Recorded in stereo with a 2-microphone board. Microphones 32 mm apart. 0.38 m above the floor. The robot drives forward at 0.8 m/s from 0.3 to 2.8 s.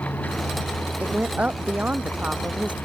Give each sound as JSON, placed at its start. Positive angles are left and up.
{"t": 0.0, "sound": "a vehicle", "side_deg": 80}
{"t": 1.0, "sound": "a woman speaking", "side_deg": -45}